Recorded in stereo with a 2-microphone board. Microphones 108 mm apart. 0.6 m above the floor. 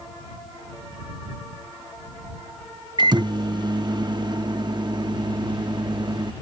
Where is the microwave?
40° right (ahead or behind).